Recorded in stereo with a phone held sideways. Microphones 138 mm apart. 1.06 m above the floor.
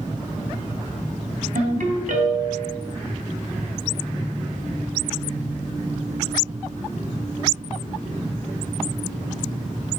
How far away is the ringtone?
About 2.5 m.